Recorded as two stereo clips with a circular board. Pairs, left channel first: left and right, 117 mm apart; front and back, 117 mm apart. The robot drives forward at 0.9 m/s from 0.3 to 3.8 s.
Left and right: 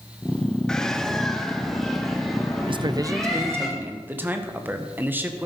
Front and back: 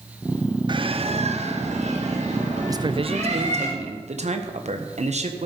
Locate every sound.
0.7 s a bird: 170° left, 0.6 m; by 3.7 s straight behind, 3 m
2.7 s a man speaking: 120° right, 0.5 m; by 5.5 s 165° right, 1.3 m